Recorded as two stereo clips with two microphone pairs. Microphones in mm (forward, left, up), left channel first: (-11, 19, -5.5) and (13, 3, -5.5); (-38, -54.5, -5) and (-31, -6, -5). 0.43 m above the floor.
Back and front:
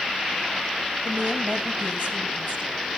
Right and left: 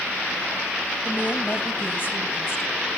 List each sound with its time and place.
1.1 s a woman speaking: 45° right, 2.5 m; by 2.8 s 70° right, 4 m